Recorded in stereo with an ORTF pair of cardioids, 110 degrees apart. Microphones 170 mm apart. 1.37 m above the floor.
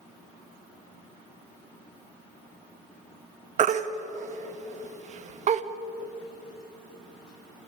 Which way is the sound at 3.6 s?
45° right.